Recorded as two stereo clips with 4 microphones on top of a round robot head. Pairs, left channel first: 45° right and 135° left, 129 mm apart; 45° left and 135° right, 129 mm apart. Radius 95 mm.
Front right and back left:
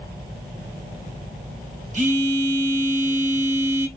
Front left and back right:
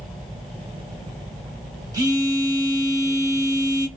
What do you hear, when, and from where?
1.9 s a phone buzzing: 160° left, 1.7 m